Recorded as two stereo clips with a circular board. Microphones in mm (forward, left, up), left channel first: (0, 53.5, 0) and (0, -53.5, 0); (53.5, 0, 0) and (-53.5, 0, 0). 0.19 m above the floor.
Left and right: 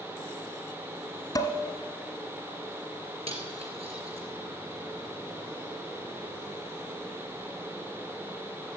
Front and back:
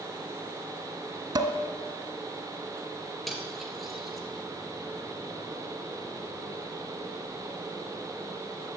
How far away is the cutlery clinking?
About 2.5 m.